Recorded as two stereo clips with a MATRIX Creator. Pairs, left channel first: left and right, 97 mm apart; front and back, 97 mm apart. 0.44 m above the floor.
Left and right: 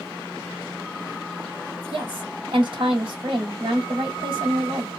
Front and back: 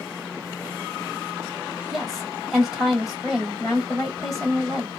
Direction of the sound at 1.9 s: 90° right.